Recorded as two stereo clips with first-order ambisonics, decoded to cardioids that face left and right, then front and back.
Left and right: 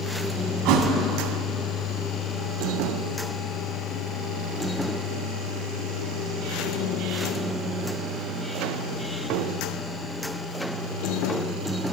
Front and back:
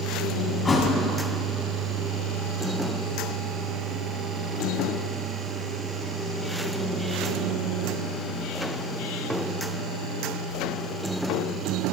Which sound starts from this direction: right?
A thud, at 0.7 s.